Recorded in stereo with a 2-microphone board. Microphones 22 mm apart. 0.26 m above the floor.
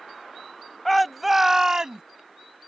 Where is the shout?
10° left (ahead or behind); by 2.0 s 35° right (ahead or behind).